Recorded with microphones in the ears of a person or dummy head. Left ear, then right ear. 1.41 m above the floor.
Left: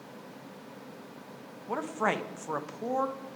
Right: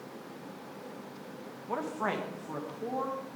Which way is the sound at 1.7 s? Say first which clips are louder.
Left 3 dB; 15° left (ahead or behind).